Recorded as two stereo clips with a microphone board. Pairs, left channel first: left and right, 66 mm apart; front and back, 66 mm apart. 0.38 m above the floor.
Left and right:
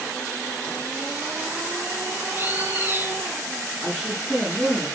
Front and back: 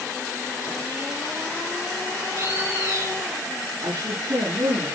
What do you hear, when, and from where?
2.3 s a bird: 140° right, 3 m
3.8 s a woman speaking: 165° right, 4.5 m